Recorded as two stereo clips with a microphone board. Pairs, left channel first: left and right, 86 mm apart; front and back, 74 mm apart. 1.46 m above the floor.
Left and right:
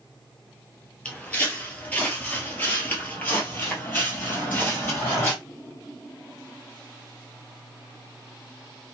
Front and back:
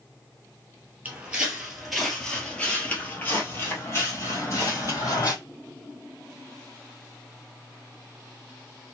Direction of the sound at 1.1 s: 145° left.